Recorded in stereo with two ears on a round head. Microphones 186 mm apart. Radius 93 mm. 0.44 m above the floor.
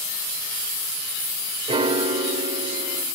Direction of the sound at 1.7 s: 30° right (ahead or behind).